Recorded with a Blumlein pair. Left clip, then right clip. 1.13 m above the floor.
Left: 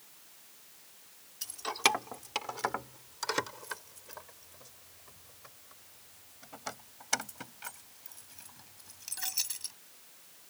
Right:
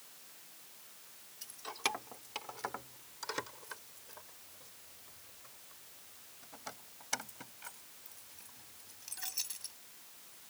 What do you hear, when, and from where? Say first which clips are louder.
1.4 s keys jangling: left 9 dB; 65° left; by 9.8 s 70° left